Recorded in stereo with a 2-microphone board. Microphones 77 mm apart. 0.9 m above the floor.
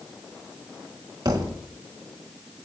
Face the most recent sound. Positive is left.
turn(degrees=-60)  # may be behind; listen again after turning